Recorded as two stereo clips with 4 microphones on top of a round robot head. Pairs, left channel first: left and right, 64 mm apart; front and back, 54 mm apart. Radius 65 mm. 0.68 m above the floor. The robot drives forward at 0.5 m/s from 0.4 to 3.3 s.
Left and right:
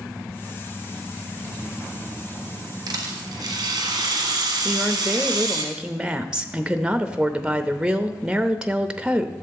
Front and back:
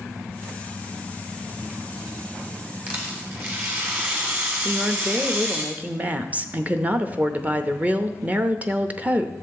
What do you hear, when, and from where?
2.9 s a rattle: 110° right, 1.4 m; by 5.7 s 115° right, 1.5 m
4.7 s a woman speaking: 155° right, 0.7 m